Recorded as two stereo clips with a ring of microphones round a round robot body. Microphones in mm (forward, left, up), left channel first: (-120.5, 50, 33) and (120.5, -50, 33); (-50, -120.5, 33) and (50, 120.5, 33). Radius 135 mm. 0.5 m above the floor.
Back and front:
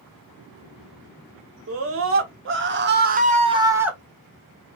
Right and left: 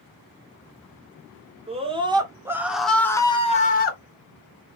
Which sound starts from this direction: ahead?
A scream, at 1.7 s.